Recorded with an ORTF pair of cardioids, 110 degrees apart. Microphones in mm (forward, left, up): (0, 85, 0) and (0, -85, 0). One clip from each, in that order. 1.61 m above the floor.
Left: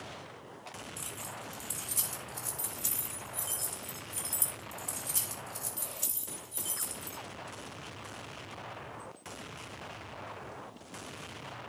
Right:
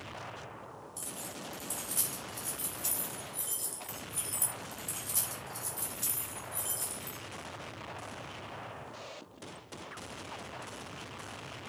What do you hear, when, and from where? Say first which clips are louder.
1.0 s keys jangling: right 2 dB; 15° left, 4 m